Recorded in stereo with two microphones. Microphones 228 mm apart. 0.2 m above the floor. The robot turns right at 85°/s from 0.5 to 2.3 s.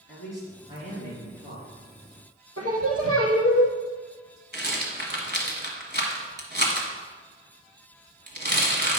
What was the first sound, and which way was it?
A man speaking, 120° left.